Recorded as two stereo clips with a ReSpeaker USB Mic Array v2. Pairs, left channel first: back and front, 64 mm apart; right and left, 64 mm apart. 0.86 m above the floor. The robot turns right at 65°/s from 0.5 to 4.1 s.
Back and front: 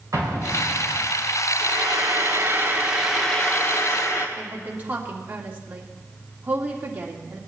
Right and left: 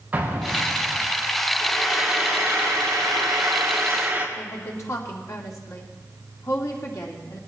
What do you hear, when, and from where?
0.1 s an explosion: 25° left, 4 m; by 1.1 s 70° left, 4 m
1.6 s frying: 15° right, 1.6 m; by 4.3 s 150° left, 1.6 m
4.4 s a woman speaking: 60° right, 2 m